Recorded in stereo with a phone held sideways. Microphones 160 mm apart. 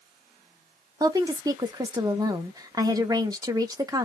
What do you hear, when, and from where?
1.0 s a woman speaking: 20° right (ahead or behind), 0.7 m